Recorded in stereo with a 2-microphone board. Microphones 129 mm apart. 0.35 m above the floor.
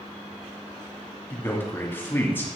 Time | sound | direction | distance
1.3 | a man speaking | 15° left (ahead or behind) | 2 m